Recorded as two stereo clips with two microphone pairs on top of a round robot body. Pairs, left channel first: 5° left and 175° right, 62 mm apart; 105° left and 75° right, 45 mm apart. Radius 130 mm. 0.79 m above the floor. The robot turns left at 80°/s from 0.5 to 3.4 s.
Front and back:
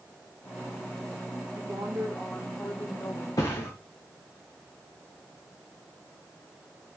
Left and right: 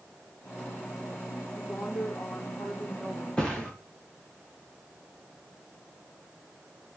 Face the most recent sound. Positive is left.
turn(degrees=30)